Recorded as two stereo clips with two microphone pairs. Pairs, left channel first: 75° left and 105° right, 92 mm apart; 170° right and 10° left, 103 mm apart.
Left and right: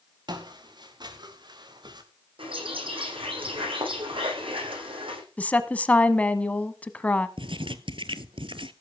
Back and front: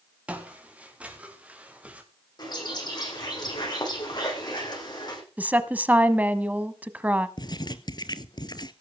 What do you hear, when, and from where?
0.3 s footsteps: 65° right, 4.5 m
2.4 s a bird: 120° right, 10 m
5.4 s a woman speaking: 40° left, 1.0 m
7.4 s writing: 120° right, 1.0 m